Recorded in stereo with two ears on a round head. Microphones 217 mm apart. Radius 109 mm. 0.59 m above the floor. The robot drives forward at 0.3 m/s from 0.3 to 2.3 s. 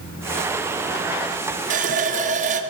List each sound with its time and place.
1.7 s a running tap: 35° right (ahead or behind), 0.6 m; by 2.6 s 30° right (ahead or behind), 0.6 m